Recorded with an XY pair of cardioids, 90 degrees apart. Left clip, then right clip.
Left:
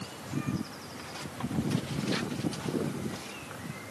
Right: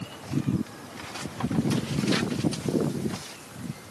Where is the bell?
No bell in this recording.